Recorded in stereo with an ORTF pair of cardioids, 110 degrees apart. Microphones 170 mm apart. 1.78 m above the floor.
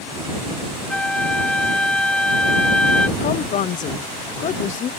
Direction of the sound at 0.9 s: 5° left.